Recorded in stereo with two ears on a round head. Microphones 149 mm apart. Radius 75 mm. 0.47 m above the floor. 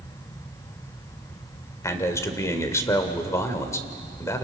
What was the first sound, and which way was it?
A man speaking, 20° left (ahead or behind).